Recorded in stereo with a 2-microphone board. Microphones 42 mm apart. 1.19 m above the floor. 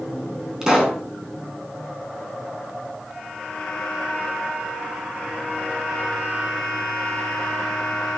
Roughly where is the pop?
Centre.